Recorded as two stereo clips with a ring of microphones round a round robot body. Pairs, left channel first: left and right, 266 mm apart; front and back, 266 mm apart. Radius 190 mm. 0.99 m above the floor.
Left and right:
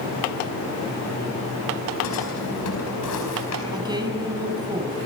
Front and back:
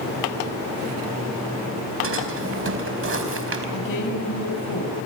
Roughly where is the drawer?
Behind left.